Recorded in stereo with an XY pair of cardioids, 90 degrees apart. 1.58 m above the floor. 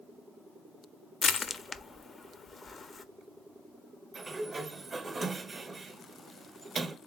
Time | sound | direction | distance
1.2 | crushing | 45° left | 0.5 m
4.1 | a sliding door | 40° right | 0.6 m